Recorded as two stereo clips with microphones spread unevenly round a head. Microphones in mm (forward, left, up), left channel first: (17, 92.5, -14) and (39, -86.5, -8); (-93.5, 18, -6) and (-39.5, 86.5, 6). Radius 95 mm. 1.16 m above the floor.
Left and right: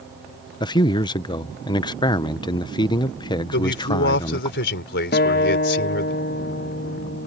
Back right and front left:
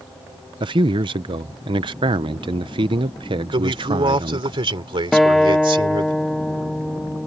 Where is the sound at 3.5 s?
70° left.